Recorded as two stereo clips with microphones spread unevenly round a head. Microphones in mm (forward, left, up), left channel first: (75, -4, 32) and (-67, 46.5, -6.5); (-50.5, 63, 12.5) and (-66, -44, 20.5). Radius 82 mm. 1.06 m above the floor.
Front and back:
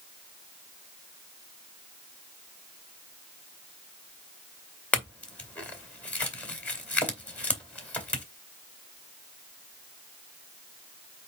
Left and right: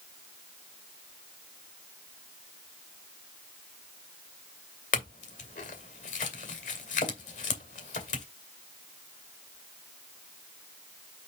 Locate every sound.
4.9 s a clink: 60° left, 2.5 m